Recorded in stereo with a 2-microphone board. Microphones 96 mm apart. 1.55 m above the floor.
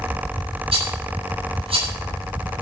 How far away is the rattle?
About 8.5 m.